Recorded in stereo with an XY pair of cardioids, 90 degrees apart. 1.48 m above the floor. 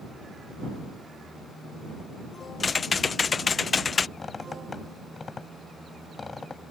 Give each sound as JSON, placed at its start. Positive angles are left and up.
{"t": 2.6, "sound": "typing on a keyboard", "azimuth_deg": 40}
{"t": 4.2, "sound": "a squeak", "azimuth_deg": 35}